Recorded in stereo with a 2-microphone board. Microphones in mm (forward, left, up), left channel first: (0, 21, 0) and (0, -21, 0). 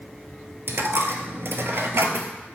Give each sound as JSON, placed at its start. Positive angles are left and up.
{"t": 0.7, "sound": "a dropped coin", "side_deg": -65, "distance_m": 0.5}